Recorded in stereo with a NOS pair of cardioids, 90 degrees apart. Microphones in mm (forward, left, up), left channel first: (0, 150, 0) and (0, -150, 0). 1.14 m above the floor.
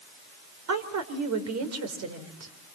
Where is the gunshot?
I don't hear a gunshot.